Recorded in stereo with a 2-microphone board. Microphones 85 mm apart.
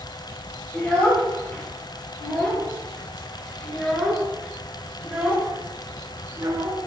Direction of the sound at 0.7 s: 15° left (ahead or behind).